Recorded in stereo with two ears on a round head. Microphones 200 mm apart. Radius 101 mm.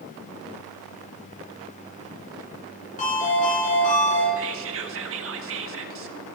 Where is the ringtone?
35° left (ahead or behind), 7.5 m.